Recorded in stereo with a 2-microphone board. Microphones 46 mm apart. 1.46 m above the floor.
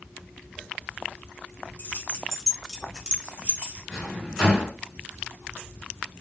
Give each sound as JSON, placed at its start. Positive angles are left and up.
{"t": 1.8, "sound": "keys jangling", "side_deg": 50, "distance_m": 0.9}
{"t": 3.9, "sound": "a drawer", "side_deg": 10, "distance_m": 2.0}